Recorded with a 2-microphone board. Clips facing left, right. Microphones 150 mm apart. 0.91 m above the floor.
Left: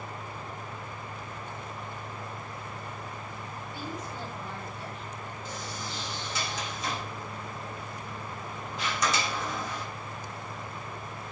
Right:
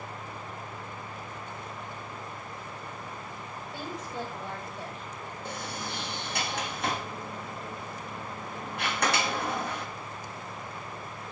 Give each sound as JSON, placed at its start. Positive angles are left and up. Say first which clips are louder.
{"t": 3.7, "sound": "a woman speaking", "louder": "right 2 dB", "side_deg": -75, "distance_m": 4.5}
{"t": 5.5, "sound": "a sliding door", "louder": "right 3 dB", "side_deg": -60, "distance_m": 1.4}